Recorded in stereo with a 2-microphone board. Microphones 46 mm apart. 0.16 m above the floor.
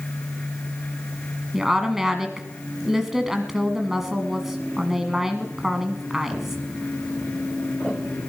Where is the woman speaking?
5° right (ahead or behind), 1.1 m.